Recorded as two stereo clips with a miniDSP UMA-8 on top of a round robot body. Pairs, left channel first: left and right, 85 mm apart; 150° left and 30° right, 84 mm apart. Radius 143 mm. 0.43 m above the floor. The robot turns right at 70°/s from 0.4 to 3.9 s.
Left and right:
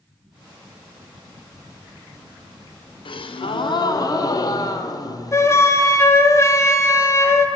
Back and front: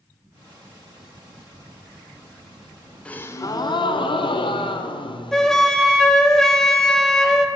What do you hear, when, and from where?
3.0 s a gasp: 75° left, 0.8 m; by 5.7 s 135° left, 0.8 m
5.3 s a flute: 70° left, 1.1 m